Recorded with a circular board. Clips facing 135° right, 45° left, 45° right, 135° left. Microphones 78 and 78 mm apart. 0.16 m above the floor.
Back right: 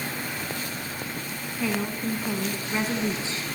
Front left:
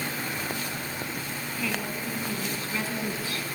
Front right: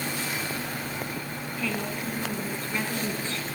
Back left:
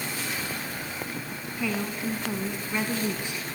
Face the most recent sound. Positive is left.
turn(degrees=-165)